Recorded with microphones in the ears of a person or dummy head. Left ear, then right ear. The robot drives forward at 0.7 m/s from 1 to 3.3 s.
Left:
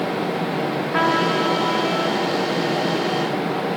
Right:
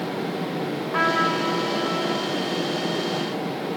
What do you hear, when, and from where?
0.9 s a trumpet: 5° right (ahead or behind), 5.5 m